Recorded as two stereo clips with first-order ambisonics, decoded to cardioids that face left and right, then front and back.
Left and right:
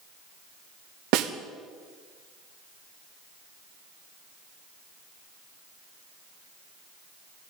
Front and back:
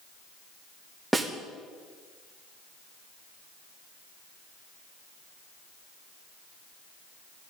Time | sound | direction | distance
1.1 | a snare drum | 95° right | 1.2 m